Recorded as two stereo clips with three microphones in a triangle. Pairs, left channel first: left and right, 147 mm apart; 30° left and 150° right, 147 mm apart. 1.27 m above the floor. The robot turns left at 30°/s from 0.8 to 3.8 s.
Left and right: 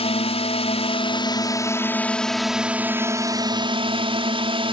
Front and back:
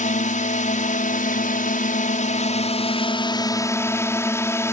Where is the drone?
50° left; by 4.7 s 40° right.